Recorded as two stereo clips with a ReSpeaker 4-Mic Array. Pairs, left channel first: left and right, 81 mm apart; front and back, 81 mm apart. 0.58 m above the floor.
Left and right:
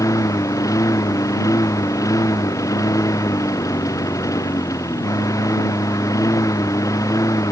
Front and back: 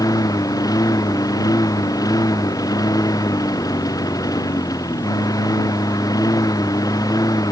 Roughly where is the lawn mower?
Ahead left.